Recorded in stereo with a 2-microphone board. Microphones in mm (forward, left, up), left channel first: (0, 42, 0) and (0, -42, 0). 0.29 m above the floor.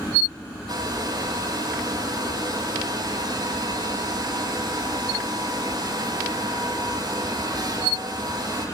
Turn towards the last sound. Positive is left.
turn(degrees=-55)  # may be behind; listen again after turning